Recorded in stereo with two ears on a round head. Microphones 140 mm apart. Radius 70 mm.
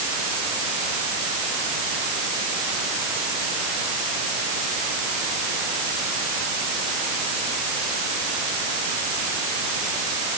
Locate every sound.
Only background noise.